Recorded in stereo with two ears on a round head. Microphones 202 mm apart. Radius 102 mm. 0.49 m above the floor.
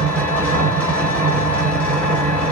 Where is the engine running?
10° left (ahead or behind), 1.1 m.